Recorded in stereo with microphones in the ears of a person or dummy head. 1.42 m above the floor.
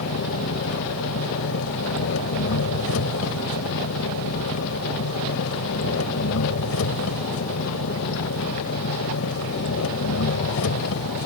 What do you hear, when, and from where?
0.0 s an engine running: 75° left (ahead or behind)